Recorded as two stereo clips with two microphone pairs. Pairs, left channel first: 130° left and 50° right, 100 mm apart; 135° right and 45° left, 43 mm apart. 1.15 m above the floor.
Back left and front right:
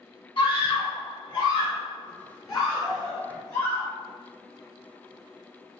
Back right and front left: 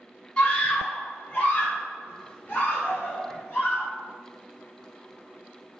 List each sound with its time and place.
0.4 s a scream: 160° left, 1.7 m; by 3.9 s 175° right, 3.5 m